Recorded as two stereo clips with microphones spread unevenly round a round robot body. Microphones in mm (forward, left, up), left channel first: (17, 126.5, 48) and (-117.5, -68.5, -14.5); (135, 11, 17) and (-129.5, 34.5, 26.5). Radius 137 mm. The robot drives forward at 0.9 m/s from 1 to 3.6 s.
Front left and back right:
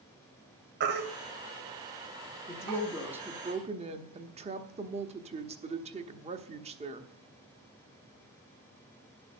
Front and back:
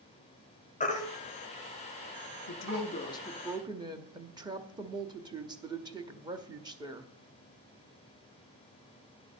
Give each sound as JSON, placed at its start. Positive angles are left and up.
{"t": 0.8, "sound": "a baby crying", "azimuth_deg": -70, "distance_m": 1.3}
{"t": 2.5, "sound": "a woman speaking", "azimuth_deg": -30, "distance_m": 1.1}